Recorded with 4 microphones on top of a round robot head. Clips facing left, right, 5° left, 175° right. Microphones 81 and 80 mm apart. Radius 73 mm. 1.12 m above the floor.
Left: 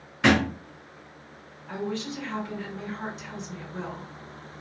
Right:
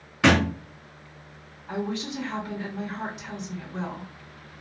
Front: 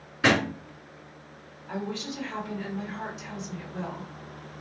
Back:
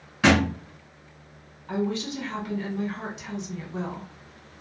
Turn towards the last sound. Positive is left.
turn(degrees=-160)